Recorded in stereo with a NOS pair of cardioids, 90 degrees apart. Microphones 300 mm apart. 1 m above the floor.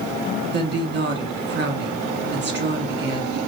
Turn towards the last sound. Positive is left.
turn(degrees=-35)